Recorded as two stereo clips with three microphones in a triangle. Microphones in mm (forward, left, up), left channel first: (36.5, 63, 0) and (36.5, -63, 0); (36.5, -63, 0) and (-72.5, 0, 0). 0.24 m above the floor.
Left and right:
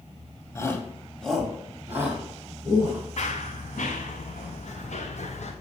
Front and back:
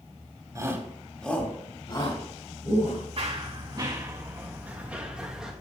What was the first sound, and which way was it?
A shout, 125° left.